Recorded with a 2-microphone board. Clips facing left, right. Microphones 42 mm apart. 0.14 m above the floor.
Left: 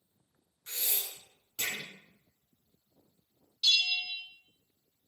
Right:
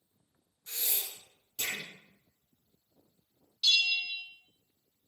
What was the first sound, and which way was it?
Breathing, 45° left (ahead or behind).